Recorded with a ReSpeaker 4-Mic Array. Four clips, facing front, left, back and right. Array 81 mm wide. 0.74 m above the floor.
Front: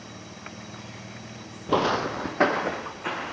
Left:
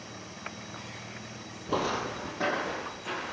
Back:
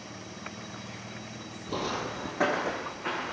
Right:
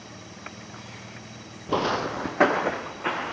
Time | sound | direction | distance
1.7 | footsteps | 20° right | 1.0 m